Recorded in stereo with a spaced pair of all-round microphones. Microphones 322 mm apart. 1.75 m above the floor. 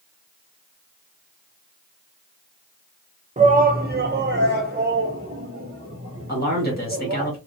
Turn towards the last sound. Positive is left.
turn(degrees=30)  # may be behind; listen again after turning